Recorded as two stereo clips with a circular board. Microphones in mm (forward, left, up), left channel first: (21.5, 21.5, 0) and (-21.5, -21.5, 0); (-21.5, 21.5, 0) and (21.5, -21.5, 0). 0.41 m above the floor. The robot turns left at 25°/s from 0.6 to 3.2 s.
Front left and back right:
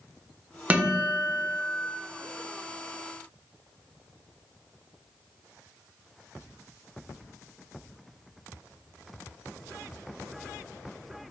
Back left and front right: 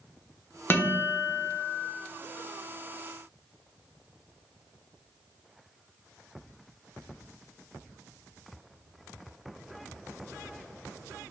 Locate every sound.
0.7 s a guitar: 170° left, 0.5 m; by 1.9 s 140° left, 0.5 m